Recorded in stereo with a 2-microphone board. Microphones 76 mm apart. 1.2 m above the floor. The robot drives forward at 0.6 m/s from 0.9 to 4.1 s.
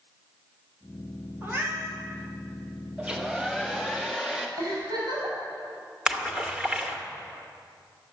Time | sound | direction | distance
1.4 | a cat meowing | 30° right (ahead or behind) | 2.5 m
3.0 | a hair dryer | 15° right (ahead or behind) | 0.8 m
4.6 | a giggle | 60° right (ahead or behind) | 5.5 m
6.1 | a splash | 10° right (ahead or behind) | 1.3 m